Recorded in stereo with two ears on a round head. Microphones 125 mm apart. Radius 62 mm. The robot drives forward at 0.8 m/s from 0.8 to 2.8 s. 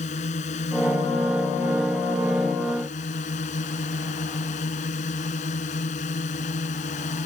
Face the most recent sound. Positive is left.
turn(degrees=55)  # may be behind; listen again after turning